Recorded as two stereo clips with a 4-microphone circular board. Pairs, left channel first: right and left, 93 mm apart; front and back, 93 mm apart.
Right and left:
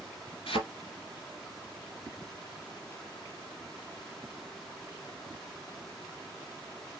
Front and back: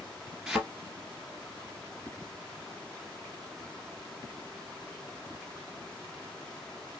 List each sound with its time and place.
0.5 s a thud: 95° right, 1.6 m